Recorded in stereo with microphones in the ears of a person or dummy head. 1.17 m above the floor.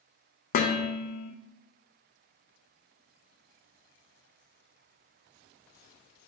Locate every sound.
0.5 s dishes clattering: 45° left (ahead or behind), 0.6 m